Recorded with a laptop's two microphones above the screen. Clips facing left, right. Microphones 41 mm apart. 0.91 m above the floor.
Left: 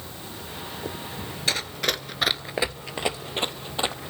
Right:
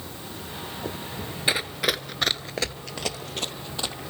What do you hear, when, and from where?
1.5 s running footsteps: 20° right (ahead or behind), 1.0 m; by 4.1 s 30° left (ahead or behind), 2 m